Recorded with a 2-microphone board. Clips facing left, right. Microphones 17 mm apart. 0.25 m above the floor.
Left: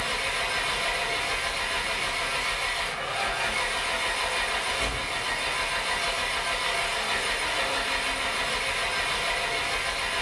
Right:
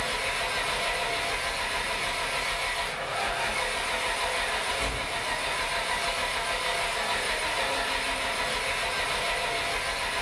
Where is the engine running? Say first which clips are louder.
Left 1 dB; 15° left (ahead or behind), 0.9 m.